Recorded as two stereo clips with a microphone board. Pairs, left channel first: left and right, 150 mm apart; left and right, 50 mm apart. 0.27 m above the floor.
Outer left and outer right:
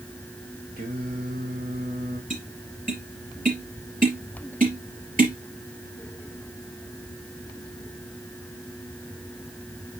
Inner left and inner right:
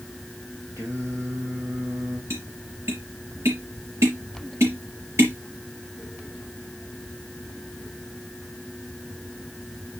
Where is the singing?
75° right (ahead or behind), 4.5 m.